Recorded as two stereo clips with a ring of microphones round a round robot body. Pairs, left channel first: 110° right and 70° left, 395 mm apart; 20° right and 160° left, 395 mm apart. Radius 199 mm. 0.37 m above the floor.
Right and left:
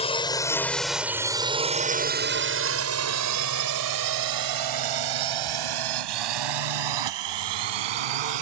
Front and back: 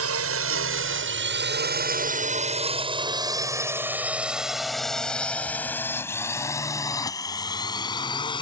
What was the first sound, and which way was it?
A drone, straight behind.